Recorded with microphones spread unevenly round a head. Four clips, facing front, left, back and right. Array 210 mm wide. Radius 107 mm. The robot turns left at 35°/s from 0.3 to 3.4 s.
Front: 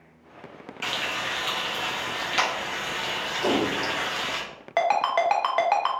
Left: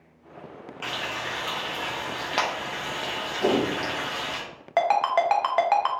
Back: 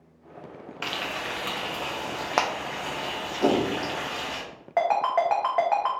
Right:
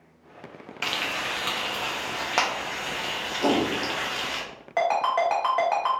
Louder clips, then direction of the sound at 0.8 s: Right 2 dB, front 1 dB; 120° right.